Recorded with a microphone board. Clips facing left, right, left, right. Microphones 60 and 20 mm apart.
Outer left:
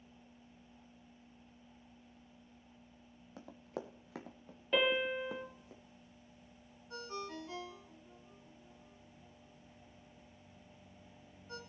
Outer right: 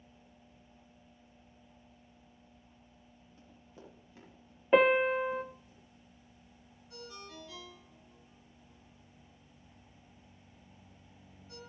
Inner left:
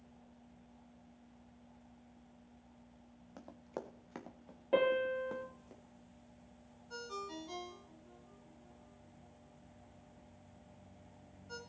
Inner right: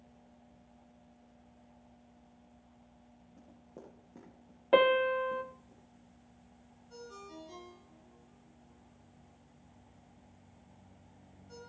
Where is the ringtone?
35° left (ahead or behind), 1.7 m.